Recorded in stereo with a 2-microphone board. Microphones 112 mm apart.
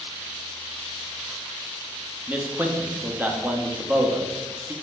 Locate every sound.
2.3 s a man speaking: 15° right (ahead or behind), 0.6 m